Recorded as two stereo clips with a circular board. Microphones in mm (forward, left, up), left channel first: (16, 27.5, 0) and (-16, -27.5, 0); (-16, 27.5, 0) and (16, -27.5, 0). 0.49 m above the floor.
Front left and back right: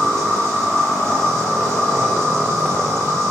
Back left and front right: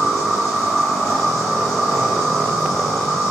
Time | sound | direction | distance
0.0 | an insect | 155° right | 4 m